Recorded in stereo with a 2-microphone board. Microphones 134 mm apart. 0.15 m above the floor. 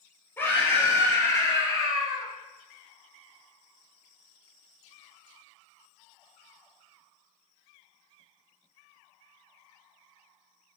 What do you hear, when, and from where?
0.4 s a scream: 15° left (ahead or behind), 4 m; by 2.3 s 30° left (ahead or behind), 3 m